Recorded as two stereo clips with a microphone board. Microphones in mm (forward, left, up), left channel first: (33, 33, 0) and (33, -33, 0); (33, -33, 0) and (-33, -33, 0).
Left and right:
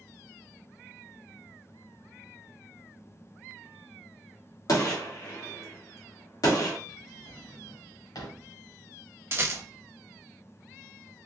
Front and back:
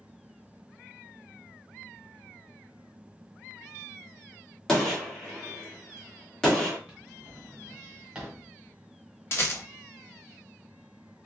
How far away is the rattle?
About 1.0 m.